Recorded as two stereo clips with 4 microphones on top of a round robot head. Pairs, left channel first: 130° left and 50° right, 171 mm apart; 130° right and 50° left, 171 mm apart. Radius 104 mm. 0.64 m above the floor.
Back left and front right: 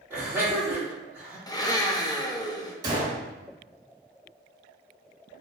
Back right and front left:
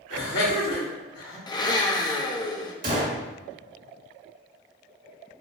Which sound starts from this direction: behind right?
Laughter, at 0.1 s.